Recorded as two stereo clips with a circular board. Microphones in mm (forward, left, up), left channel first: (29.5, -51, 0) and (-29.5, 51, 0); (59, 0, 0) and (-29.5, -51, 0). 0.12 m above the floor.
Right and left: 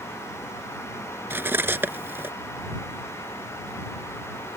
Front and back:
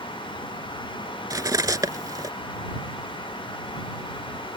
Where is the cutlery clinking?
175° right.